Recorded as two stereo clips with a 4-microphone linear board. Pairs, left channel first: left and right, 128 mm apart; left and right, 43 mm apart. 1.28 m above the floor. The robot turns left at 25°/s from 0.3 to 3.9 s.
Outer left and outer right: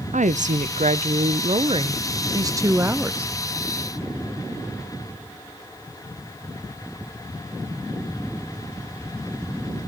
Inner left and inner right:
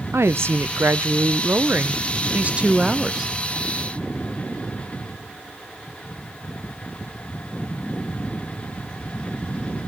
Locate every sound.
0.1 s a woman speaking: 95° right, 0.7 m; by 3.3 s 170° right, 0.7 m